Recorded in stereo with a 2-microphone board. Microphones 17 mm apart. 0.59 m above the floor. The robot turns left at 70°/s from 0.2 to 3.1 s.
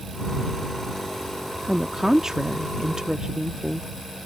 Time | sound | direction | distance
1.7 | a woman speaking | 15° right | ?